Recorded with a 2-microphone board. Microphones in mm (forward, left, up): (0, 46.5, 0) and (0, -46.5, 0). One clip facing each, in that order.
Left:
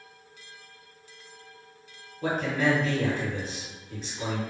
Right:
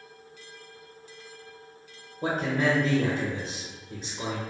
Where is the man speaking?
25° right (ahead or behind), 1.1 m.